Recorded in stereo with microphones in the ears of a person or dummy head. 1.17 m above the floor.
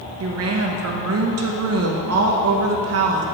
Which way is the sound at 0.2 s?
65° right (ahead or behind).